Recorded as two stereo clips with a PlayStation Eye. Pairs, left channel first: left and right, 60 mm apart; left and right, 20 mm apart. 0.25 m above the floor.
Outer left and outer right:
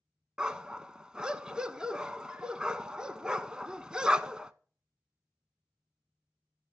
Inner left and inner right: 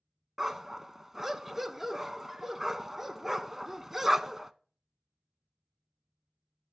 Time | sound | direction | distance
0.4 | a dog barking | 15° right (ahead or behind) | 0.7 m